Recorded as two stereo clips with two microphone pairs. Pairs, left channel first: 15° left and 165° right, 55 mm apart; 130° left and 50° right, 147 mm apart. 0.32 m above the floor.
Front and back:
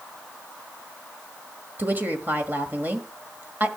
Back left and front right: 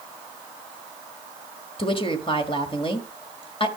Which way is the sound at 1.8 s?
160° left.